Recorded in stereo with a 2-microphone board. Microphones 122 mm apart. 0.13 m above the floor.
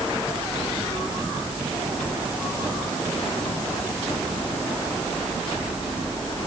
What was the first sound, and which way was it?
Only background noise.